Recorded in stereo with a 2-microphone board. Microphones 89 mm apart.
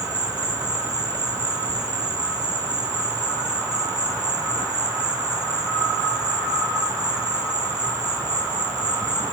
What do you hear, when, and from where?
0.0 s an insect: 45° right (ahead or behind), 0.8 m